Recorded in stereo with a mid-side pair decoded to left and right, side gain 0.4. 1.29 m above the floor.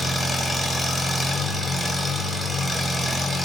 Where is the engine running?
5° right, 1.1 m.